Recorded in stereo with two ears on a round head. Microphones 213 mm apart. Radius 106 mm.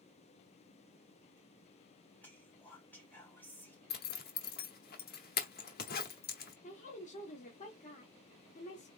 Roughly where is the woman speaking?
Left.